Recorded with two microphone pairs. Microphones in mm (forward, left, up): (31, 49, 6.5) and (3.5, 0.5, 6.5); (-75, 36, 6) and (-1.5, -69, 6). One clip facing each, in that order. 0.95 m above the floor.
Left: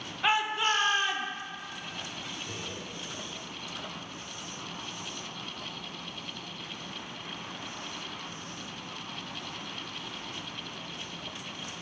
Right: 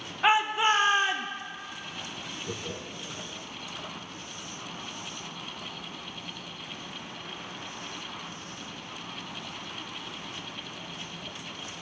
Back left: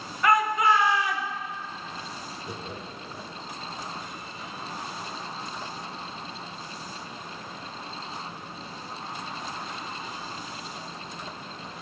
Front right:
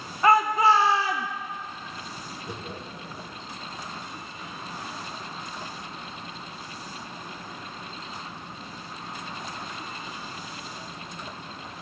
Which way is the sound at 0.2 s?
60° right.